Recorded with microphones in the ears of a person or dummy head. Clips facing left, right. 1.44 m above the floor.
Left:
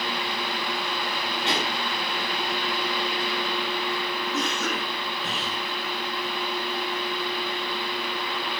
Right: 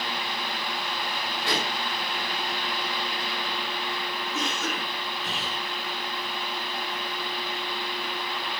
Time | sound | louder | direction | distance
1.5 | a pop | left 1 dB | 20° left (ahead or behind) | 9.5 m
4.3 | a cough | left 2 dB | 50° left (ahead or behind) | 7.5 m